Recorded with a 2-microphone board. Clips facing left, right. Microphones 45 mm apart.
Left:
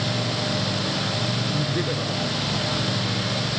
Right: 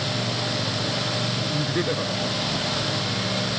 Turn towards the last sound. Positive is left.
turn(degrees=-20)  # may be behind; listen again after turning